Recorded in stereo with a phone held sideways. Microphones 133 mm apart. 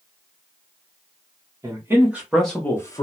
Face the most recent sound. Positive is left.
turn(degrees=30)  # may be behind; listen again after turning